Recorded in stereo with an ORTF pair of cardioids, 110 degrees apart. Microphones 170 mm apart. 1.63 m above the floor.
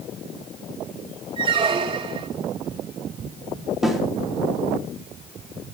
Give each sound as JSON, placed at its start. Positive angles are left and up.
{"t": 1.4, "sound": "a squeak", "azimuth_deg": -30, "distance_m": 3.0}
{"t": 3.8, "sound": "a snare drum", "azimuth_deg": 0, "distance_m": 4.0}